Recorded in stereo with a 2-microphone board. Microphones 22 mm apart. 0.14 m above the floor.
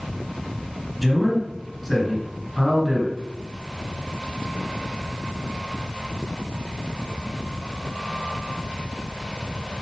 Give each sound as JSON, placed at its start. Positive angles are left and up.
{"t": 1.0, "sound": "a man speaking", "side_deg": -5, "distance_m": 1.8}